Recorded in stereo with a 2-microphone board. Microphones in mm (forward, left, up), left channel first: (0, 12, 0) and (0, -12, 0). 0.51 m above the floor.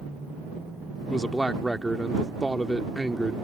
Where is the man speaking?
20° left (ahead or behind).